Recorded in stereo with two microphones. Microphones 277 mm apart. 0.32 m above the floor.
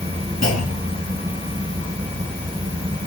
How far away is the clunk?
About 4 m.